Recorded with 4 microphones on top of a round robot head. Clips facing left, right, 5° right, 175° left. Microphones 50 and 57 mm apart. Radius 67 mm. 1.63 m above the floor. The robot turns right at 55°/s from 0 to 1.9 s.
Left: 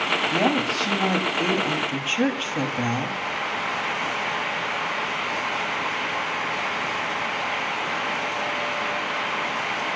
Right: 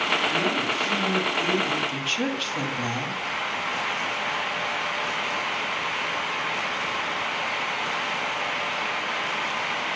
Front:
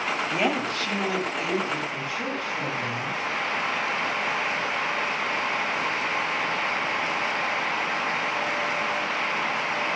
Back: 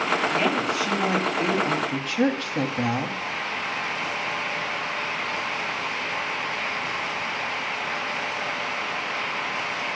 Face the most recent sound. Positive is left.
turn(degrees=155)